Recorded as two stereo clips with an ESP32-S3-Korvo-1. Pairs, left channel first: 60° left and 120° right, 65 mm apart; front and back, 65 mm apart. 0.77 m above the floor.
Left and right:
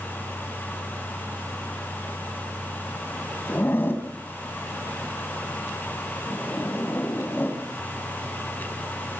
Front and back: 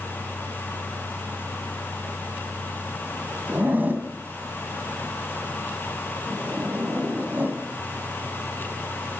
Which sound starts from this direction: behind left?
A zipper, at 3.5 s.